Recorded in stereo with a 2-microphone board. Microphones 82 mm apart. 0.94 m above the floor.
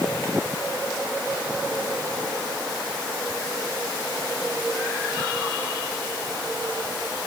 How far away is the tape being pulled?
No tape being pulled in this recording.